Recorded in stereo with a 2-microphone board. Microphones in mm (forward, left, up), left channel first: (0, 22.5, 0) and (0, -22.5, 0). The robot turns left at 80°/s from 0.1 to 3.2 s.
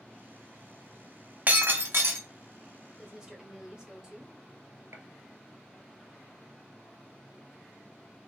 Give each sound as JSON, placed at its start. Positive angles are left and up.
{"t": 1.5, "sound": "breaking glass", "azimuth_deg": -40, "distance_m": 1.0}
{"t": 3.0, "sound": "a woman speaking", "side_deg": -5, "distance_m": 1.2}
{"t": 4.9, "sound": "a gunshot", "side_deg": -75, "distance_m": 0.9}